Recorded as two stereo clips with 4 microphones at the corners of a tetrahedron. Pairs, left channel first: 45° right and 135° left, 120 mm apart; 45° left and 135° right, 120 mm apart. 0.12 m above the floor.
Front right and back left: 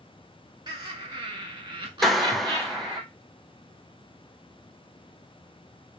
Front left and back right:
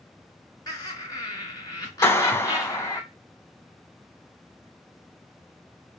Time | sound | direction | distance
0.7 | laughter | 95° left | 2.5 m
2.0 | a clap | 40° left | 0.8 m